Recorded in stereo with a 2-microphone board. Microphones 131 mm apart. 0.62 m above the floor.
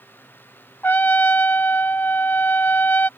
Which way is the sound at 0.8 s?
15° left (ahead or behind).